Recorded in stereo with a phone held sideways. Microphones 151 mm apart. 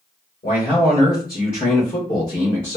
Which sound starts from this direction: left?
A man speaking, at 0.4 s.